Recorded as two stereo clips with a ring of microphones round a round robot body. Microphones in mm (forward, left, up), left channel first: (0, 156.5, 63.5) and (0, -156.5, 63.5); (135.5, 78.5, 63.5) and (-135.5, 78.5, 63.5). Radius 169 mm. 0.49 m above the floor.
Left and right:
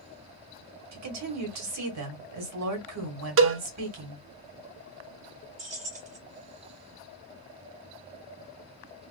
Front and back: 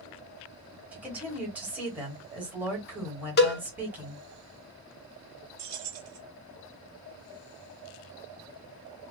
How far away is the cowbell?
About 0.7 m.